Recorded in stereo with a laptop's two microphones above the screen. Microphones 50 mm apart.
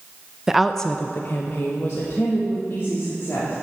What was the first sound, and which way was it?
A woman speaking, 10° right (ahead or behind).